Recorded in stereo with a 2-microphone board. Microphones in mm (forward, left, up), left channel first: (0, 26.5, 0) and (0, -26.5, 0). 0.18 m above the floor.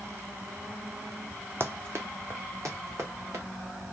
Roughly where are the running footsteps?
Right.